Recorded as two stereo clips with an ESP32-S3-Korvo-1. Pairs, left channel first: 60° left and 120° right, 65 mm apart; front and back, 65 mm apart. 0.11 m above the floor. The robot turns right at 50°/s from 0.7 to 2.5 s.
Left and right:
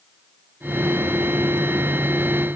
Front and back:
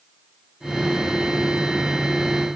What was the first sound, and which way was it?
Only background noise.